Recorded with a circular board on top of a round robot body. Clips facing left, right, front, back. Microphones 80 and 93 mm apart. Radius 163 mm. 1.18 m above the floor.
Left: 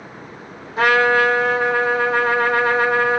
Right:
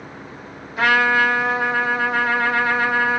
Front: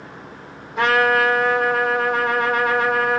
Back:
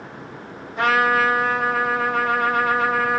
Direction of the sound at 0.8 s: 30° left.